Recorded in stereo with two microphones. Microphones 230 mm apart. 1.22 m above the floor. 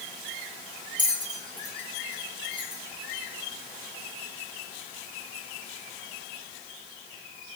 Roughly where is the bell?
Centre.